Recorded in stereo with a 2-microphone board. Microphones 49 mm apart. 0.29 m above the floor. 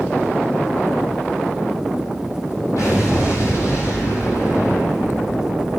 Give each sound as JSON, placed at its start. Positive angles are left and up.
{"t": 2.8, "sound": "an explosion", "side_deg": 75, "distance_m": 3.5}